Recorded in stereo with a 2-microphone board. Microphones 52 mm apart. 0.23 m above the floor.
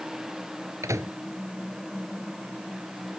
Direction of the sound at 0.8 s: 75° right (ahead or behind).